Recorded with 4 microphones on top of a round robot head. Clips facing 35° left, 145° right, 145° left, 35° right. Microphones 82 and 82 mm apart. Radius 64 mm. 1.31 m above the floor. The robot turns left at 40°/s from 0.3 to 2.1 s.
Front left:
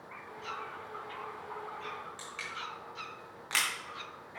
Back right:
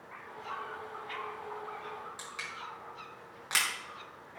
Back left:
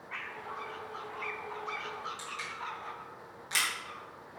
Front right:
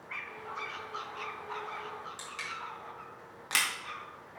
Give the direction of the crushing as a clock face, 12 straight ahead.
2 o'clock.